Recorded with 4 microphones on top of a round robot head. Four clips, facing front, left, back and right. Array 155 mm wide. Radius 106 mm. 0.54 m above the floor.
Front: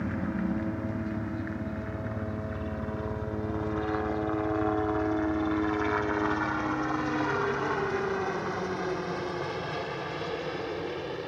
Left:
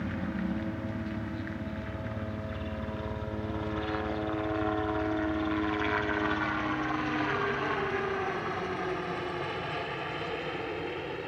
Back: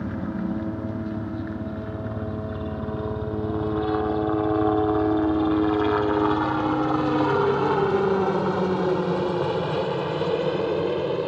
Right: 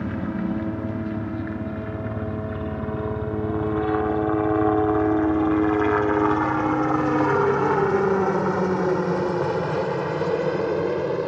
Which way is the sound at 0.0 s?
105° right.